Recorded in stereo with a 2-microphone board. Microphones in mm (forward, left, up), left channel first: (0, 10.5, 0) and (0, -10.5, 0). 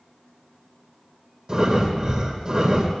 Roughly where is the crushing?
No crushing in this recording.